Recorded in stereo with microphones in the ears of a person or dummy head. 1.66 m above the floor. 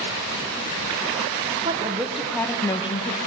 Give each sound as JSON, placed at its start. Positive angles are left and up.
{"t": 1.6, "sound": "a woman speaking", "side_deg": -25, "distance_m": 1.5}